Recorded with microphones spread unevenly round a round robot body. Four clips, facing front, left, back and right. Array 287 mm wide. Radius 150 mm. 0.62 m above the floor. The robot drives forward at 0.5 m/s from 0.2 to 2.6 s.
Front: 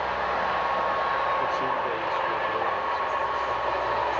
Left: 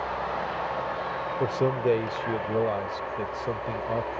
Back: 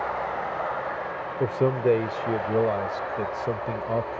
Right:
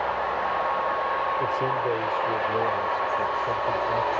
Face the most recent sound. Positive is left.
turn(degrees=160)